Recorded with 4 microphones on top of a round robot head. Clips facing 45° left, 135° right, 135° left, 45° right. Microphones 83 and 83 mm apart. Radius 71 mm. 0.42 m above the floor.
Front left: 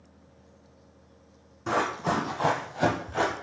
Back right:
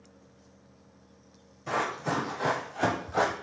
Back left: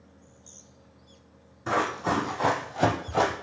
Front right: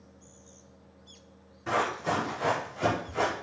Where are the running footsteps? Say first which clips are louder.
Front left 3 dB, back left 2 dB; 65° left, 1.4 m; by 3.3 s 160° left, 0.9 m.